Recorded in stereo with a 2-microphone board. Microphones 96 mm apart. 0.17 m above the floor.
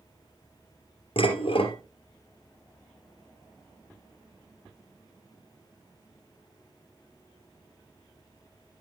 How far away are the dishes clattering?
About 2 m.